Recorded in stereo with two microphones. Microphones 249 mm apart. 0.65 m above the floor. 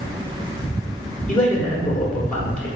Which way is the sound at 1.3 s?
5° left (ahead or behind).